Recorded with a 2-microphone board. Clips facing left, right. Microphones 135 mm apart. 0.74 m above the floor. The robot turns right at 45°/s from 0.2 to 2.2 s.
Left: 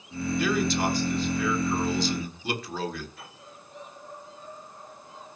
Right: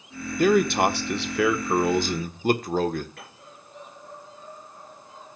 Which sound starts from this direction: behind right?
A man speaking, at 0.4 s.